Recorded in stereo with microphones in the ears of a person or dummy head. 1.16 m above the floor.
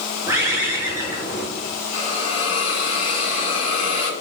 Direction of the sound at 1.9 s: 35° left (ahead or behind).